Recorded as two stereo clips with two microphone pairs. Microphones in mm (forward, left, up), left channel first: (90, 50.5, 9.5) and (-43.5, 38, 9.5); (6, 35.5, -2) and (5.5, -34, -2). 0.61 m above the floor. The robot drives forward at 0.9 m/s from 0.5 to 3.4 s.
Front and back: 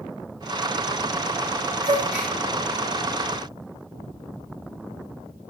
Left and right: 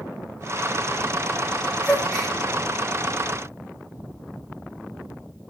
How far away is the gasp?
About 2.5 m.